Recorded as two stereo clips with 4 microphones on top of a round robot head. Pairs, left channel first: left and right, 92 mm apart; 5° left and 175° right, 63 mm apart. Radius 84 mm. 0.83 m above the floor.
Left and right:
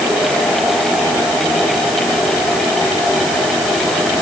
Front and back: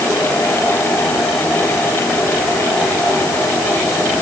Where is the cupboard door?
I don't hear a cupboard door.